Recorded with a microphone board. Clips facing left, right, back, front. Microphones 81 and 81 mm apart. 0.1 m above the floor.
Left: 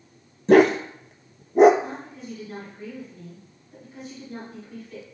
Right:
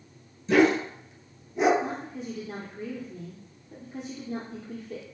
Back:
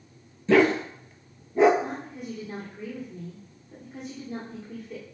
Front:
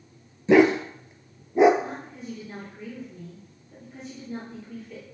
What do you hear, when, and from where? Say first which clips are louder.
0.5 s a dog barking: left 5 dB, front 3 dB; 70° left, 0.7 m
1.8 s a woman speaking: right 2 dB, back 1 dB; 105° right, 2.5 m